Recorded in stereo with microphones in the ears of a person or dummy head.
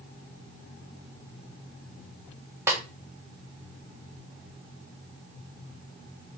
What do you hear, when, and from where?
2.7 s a snare drum: 15° right (ahead or behind), 0.6 m